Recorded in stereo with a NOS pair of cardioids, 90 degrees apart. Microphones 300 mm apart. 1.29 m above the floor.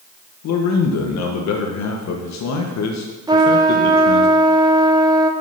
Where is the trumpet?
15° right, 1.5 m.